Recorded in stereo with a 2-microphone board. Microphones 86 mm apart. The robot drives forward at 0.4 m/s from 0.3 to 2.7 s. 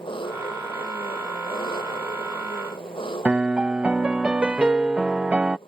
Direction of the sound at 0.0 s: 75° left (ahead or behind).